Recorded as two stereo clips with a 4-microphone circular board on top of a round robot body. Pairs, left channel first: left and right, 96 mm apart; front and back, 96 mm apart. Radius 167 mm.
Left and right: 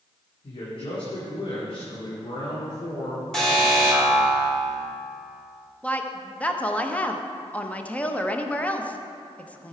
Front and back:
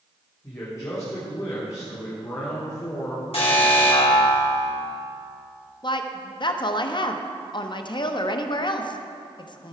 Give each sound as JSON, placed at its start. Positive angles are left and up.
{"t": 0.4, "sound": "a man speaking", "azimuth_deg": 60, "distance_m": 2.5}
{"t": 3.3, "sound": "an alarm", "azimuth_deg": 5, "distance_m": 3.0}
{"t": 5.8, "sound": "a woman speaking", "azimuth_deg": 15, "distance_m": 1.0}